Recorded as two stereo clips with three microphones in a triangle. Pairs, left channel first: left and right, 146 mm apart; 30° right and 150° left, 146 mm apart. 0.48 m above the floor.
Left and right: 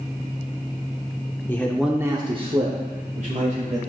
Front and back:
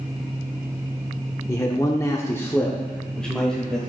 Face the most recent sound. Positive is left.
turn(degrees=-115)